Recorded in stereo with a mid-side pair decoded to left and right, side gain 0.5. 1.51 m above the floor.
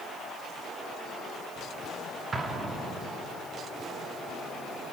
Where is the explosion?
35° right, 2.5 m.